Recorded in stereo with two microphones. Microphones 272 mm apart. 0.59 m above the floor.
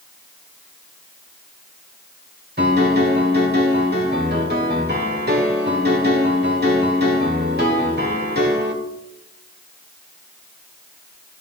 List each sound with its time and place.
2.6 s a piano: 35° right (ahead or behind), 2 m